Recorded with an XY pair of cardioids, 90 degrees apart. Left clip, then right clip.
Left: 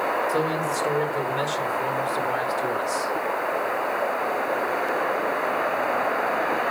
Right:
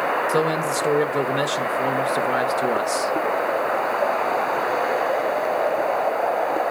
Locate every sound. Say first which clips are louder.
0.3 s a man speaking: right 3 dB; 60° right, 1.4 m